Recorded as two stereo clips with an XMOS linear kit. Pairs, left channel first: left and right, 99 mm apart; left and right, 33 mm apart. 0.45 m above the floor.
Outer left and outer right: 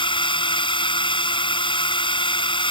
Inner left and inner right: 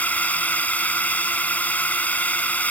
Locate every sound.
0.0 s a drone: 55° left (ahead or behind)